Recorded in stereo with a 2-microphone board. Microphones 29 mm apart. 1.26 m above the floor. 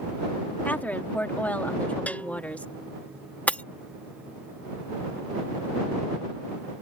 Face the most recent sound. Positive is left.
turn(degrees=55)  # may be behind; listen again after turning